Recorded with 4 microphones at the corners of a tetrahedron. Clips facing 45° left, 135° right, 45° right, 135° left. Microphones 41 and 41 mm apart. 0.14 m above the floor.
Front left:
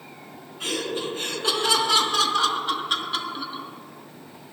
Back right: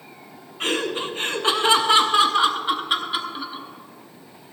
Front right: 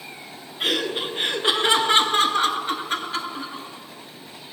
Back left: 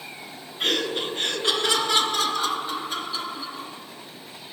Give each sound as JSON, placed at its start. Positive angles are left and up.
{"t": 0.6, "sound": "laughter", "azimuth_deg": -130, "distance_m": 1.5}